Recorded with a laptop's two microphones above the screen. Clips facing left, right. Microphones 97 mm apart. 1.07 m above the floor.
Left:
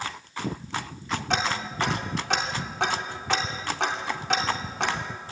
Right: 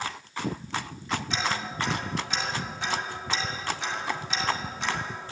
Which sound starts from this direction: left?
Ticking, at 1.3 s.